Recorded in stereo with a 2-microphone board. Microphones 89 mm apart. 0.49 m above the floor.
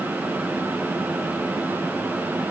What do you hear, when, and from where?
Only background noise.